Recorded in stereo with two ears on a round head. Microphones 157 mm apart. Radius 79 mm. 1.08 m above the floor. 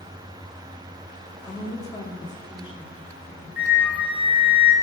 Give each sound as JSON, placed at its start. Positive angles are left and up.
{"t": 1.4, "sound": "a woman speaking", "side_deg": 20, "distance_m": 2.0}
{"t": 3.6, "sound": "a flute", "side_deg": -10, "distance_m": 1.9}